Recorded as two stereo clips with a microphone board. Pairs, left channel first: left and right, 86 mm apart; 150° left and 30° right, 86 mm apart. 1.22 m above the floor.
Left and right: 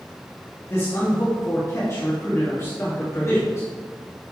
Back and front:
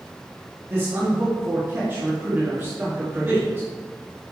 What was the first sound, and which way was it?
A man speaking, 35° left.